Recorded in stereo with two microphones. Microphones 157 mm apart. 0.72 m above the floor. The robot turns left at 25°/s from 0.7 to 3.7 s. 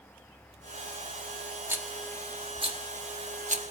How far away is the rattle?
About 1.1 m.